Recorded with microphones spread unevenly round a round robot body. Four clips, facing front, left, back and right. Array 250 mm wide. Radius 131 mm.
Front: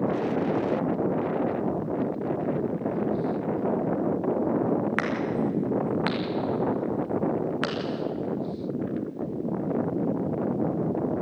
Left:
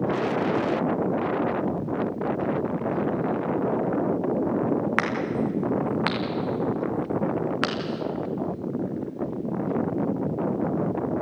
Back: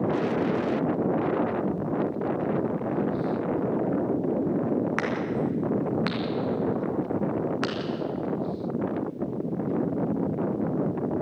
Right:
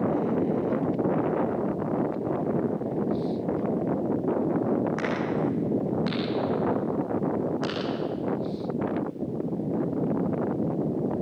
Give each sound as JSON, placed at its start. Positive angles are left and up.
{"t": 5.0, "sound": "a crack", "azimuth_deg": 60, "distance_m": 4.5}